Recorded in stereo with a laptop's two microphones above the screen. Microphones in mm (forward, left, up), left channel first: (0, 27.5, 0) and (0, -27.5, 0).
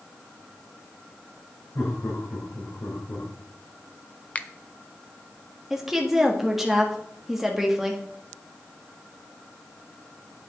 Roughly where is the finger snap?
Left.